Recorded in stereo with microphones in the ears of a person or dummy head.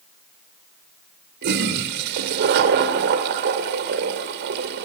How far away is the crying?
I don't hear crying.